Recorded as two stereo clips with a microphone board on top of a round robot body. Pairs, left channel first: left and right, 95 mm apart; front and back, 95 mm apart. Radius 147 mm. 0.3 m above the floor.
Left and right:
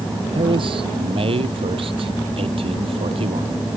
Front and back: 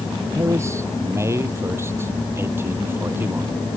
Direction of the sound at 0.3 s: 120° right.